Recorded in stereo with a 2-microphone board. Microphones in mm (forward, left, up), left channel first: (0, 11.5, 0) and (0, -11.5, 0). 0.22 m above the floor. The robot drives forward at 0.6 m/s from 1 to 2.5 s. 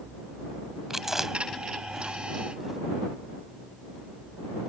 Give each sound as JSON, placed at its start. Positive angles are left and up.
{"t": 0.9, "sound": "chewing", "side_deg": -15}